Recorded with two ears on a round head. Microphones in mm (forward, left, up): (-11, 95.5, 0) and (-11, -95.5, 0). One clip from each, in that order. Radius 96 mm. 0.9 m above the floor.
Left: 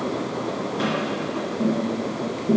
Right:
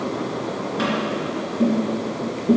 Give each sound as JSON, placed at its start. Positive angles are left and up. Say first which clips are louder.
{"t": 0.8, "sound": "tapping", "louder": "right 3 dB", "side_deg": -25, "distance_m": 3.0}